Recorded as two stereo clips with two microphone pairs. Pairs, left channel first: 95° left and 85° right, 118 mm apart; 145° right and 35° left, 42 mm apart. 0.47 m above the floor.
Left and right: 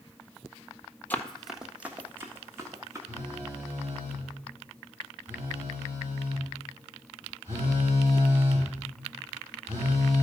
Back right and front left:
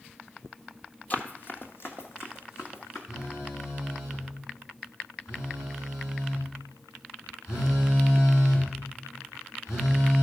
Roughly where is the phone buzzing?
Behind right.